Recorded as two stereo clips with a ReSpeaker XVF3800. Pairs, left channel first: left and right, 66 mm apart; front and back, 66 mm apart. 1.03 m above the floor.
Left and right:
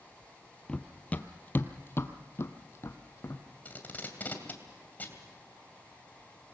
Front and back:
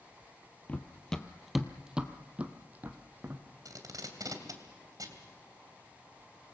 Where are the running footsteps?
30° left, 1.1 m; by 3.4 s 125° left, 1.9 m.